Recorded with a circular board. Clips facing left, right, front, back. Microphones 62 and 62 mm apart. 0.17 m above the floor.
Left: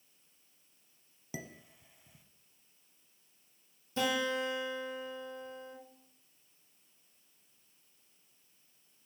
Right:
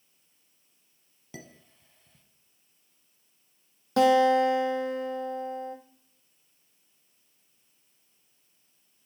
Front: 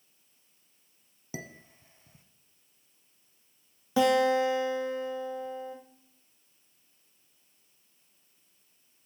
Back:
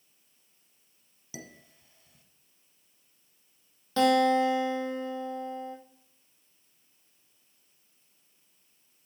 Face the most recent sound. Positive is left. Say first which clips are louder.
# right 13 dB, back 1 dB
turn(degrees=-80)